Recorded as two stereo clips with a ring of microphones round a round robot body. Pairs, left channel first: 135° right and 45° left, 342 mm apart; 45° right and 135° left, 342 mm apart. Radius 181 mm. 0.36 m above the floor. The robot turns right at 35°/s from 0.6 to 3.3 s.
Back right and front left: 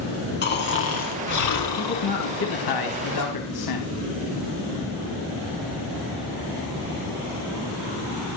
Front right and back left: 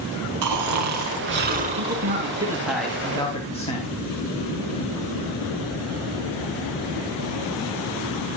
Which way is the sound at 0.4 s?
165° left.